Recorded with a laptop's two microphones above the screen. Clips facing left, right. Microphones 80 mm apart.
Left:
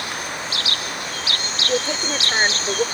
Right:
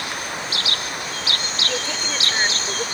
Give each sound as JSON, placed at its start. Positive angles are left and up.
{"t": 1.7, "sound": "a woman speaking", "side_deg": 25}